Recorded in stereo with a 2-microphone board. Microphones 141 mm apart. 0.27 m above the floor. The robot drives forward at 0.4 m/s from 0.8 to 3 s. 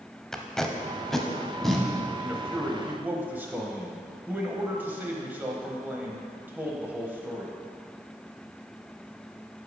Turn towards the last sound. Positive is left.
turn(degrees=-15)  # may be behind; listen again after turning